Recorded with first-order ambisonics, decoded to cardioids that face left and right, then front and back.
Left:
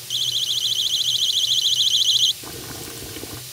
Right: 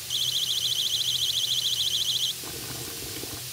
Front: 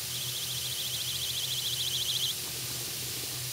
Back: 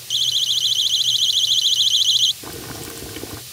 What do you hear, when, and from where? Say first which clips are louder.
0.1 s a siren: left 4 dB, back 20 dB; 165° left; by 2.3 s 145° left
2.4 s boiling: left 2 dB, back 4 dB; 165° left